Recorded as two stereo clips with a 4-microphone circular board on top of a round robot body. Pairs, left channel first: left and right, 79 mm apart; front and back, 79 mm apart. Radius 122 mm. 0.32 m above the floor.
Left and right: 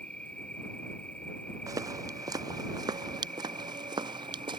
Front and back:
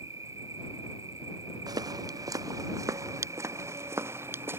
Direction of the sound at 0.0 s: 160° left.